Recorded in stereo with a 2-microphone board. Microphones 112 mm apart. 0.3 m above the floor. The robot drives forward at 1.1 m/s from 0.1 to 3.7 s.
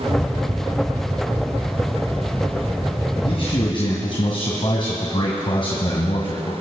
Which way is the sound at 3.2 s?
55° left (ahead or behind).